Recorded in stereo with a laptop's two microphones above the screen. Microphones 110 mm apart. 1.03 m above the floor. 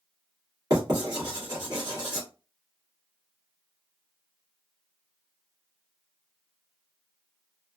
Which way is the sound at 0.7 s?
40° right (ahead or behind).